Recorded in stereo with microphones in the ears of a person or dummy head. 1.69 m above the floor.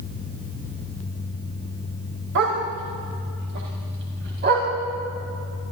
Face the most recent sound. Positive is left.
turn(degrees=-55)  # may be behind; listen again after turning